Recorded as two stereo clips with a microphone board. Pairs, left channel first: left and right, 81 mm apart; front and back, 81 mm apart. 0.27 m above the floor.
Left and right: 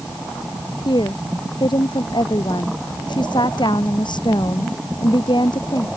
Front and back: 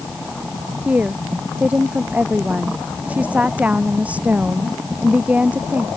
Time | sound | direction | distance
0.8 | a woman speaking | 105° left | ?